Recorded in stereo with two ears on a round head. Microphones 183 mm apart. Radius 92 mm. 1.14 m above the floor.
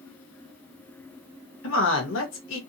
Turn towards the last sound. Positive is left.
turn(degrees=65)  # may be behind; listen again after turning